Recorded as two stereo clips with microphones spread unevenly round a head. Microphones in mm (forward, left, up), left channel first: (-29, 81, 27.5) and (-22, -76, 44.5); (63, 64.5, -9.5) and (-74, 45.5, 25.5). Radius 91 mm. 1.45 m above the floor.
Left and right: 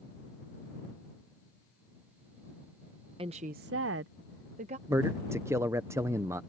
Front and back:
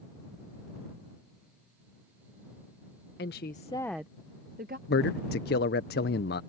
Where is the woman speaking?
25° right; by 4.8 s 135° right.